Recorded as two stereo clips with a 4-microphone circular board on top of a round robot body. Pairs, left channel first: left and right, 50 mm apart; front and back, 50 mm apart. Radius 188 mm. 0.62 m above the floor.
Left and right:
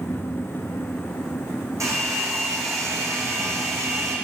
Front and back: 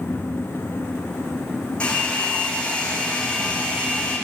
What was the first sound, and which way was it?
A hair dryer, 70° right.